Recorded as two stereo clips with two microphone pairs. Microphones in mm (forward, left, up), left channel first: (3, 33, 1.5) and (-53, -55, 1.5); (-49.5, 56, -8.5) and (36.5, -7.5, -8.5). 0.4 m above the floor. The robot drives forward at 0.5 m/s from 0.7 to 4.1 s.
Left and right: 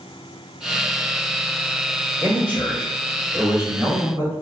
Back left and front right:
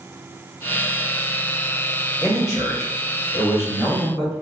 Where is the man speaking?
Straight behind, 1.6 m.